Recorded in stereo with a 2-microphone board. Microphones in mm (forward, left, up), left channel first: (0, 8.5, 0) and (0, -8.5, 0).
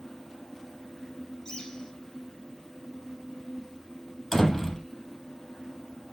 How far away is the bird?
About 5.5 m.